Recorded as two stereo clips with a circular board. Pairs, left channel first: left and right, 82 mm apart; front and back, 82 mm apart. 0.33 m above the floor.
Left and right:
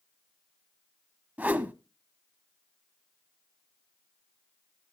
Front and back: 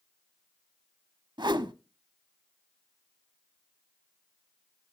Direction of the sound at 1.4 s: 160° right.